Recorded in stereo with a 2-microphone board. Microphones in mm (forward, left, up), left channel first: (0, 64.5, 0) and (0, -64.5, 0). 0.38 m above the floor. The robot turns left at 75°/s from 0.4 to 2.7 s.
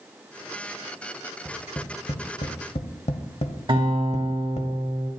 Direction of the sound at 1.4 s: 20° left (ahead or behind).